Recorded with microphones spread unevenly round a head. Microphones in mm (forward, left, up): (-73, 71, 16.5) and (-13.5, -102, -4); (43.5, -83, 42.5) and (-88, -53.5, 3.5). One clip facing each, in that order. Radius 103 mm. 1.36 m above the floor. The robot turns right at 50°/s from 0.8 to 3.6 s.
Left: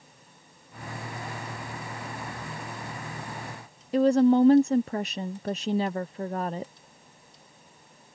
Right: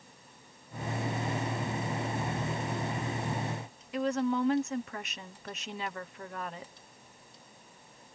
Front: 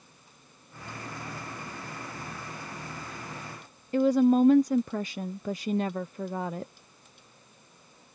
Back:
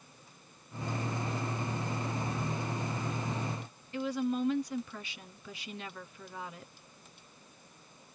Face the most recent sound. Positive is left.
turn(degrees=50)